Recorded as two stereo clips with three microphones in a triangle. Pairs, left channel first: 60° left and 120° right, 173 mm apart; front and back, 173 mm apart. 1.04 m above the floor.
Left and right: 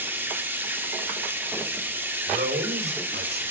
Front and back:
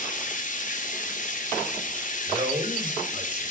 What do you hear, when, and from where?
0.0 s running water: 40° right, 2.0 m
2.3 s a man speaking: 120° right, 6 m